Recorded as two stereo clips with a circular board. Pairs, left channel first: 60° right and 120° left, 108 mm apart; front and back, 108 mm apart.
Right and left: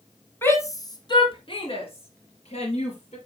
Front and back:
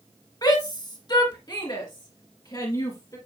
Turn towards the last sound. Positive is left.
turn(degrees=-55)